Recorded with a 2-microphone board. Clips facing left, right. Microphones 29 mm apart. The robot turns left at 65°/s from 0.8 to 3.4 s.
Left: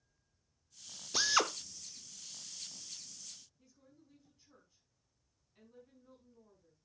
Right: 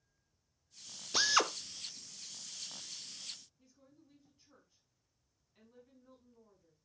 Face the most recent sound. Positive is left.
turn(degrees=-5)  # may be behind; listen again after turning